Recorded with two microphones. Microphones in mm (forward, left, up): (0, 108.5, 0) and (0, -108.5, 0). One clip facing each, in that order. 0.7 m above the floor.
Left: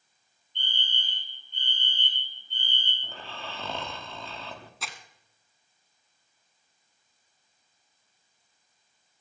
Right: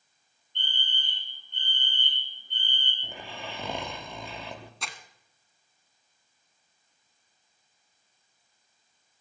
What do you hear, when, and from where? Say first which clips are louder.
0.6 s a fire alarm: even; 60° right (ahead or behind), 4.5 m
3.0 s snoring: right 2 dB; 15° right (ahead or behind), 1.2 m
4.8 s crumpling: even; centre (ahead or behind), 1.3 m